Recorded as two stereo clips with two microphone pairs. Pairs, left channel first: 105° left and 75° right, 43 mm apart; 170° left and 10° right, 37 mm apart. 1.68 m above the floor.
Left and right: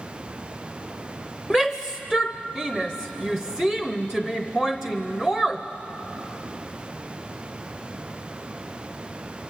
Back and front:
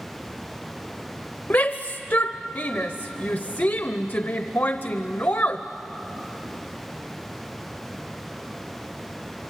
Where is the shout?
Straight behind, 0.8 m.